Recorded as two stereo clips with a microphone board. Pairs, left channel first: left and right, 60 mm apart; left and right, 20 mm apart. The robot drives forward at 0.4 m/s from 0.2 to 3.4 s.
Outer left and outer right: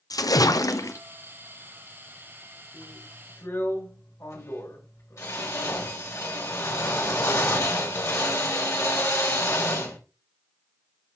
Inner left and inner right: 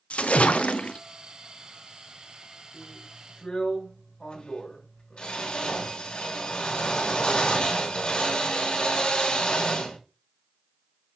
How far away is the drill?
About 4 m.